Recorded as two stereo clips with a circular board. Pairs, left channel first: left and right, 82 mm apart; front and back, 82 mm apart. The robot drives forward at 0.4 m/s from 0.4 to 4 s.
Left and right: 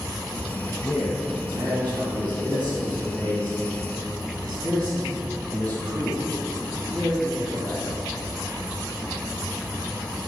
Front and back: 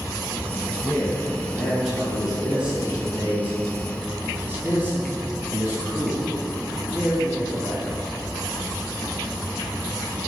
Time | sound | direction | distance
0.8 | a man speaking | 85° right | 2.5 m